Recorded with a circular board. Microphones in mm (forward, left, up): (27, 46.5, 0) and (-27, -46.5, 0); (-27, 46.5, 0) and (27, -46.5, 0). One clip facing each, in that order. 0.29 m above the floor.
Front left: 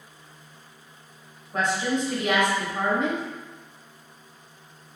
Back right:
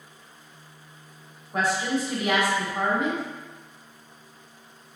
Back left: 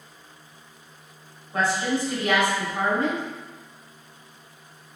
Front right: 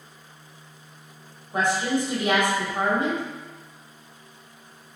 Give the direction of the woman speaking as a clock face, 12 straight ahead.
2 o'clock.